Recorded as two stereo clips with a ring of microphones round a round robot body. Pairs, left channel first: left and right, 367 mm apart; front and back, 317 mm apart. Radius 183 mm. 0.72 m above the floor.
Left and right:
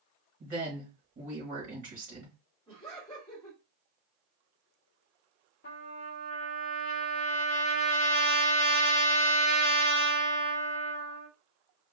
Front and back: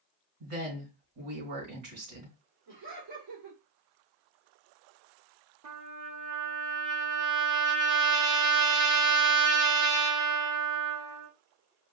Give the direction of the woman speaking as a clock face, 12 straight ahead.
5 o'clock.